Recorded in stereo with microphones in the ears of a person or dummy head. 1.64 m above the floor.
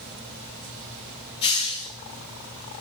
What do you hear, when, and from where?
1.4 s a hiss: 25° left (ahead or behind), 1.4 m